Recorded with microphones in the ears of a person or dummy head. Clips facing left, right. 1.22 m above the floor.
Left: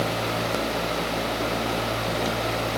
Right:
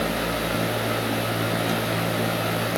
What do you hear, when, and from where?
Only background noise.